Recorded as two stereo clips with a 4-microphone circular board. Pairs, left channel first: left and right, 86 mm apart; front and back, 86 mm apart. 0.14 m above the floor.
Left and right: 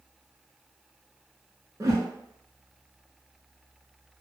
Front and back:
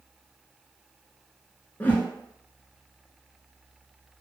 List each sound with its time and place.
1.8 s a whoosh: 60° right, 0.6 m